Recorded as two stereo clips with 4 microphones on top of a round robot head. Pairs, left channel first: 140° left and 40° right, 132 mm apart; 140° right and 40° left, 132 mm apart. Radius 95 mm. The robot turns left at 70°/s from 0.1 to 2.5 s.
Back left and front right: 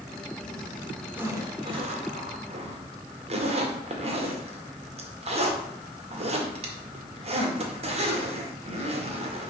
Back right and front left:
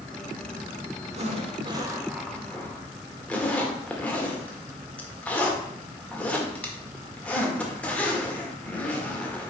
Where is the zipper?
35° left, 1.9 m; by 9.5 s 60° right, 1.9 m.